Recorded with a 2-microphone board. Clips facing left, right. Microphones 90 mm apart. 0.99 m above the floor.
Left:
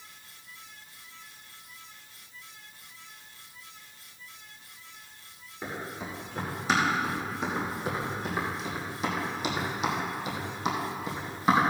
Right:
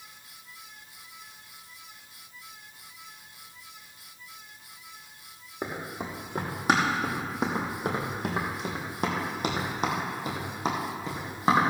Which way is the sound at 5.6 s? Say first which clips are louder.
Right 2 dB; 60° right (ahead or behind).